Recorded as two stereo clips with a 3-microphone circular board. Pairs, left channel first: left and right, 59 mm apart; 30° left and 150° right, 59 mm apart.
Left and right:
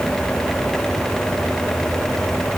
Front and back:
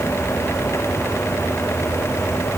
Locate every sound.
Only background noise.